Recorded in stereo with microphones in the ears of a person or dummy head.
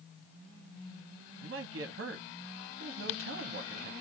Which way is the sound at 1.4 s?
55° right (ahead or behind).